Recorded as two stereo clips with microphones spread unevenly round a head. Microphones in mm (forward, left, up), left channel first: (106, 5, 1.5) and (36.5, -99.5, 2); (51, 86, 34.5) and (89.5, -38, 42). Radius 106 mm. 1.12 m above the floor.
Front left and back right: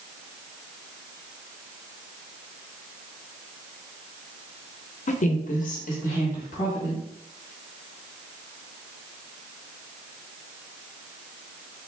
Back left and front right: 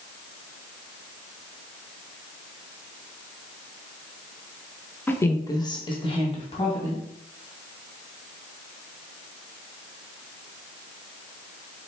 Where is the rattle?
No rattle in this recording.